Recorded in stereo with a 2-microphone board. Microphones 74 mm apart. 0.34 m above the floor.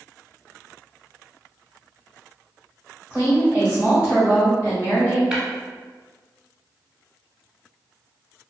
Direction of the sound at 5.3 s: 10° right (ahead or behind).